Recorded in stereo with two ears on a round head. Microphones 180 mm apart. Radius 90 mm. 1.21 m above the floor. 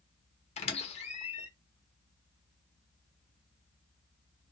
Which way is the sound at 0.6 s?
30° left (ahead or behind).